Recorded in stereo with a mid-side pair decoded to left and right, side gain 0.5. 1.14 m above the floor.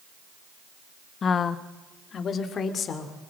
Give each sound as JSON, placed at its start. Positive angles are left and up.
{"t": 1.2, "sound": "a woman speaking", "azimuth_deg": 45, "distance_m": 1.0}